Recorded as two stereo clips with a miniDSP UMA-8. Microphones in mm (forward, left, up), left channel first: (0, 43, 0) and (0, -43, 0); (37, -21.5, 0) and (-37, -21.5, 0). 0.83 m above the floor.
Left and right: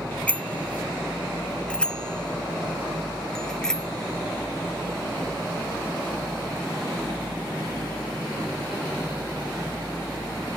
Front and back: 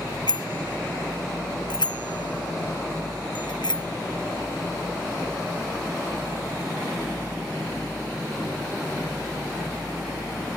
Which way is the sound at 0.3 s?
15° left.